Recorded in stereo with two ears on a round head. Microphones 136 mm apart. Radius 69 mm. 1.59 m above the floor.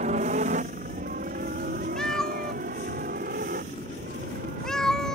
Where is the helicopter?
45° right (ahead or behind); by 5.2 s 50° right (ahead or behind).